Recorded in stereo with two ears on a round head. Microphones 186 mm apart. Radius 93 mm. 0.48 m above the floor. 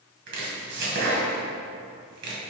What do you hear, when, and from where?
0.3 s chopping: 60° right (ahead or behind), 1.7 m